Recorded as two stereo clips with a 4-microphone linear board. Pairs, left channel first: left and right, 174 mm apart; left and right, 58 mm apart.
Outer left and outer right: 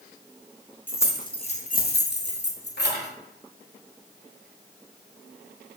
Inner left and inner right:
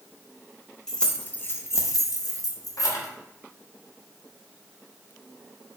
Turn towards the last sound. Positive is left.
turn(degrees=65)  # may be behind; listen again after turning